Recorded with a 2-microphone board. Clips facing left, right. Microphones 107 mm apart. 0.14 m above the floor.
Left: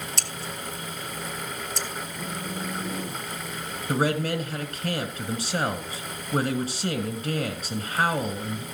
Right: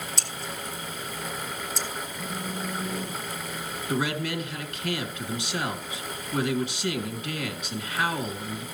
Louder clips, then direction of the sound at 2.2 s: Even; 25° left (ahead or behind).